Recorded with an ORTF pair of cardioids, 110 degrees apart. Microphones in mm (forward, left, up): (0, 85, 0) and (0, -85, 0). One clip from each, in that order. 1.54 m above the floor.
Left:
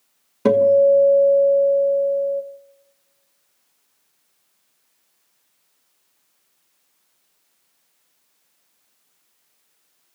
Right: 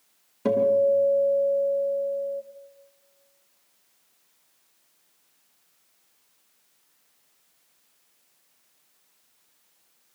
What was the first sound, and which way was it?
A guitar, 50° left.